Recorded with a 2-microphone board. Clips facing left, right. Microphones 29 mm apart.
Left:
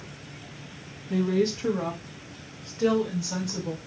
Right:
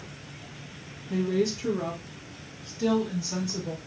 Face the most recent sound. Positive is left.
turn(degrees=65)  # may be behind; listen again after turning